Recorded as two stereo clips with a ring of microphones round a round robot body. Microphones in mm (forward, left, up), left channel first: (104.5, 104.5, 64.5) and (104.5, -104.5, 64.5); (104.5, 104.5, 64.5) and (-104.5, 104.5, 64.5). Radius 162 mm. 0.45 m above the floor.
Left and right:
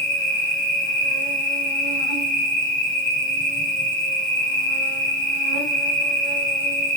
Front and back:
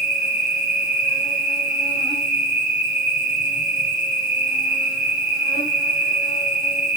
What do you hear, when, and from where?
0.0 s an insect: 155° right, 1.5 m